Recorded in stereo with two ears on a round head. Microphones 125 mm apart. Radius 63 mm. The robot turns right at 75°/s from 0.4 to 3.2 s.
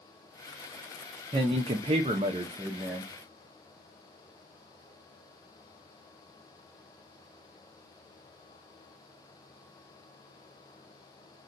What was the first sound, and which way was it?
A man speaking, 130° right.